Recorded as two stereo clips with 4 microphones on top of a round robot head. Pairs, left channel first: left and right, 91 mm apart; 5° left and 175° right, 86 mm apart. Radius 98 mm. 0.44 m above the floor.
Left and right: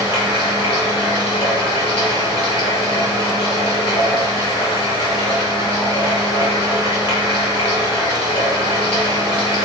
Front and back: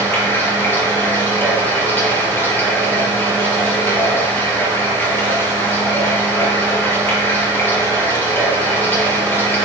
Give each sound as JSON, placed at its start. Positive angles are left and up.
{"t": 0.0, "sound": "running water", "azimuth_deg": 70, "distance_m": 3.0}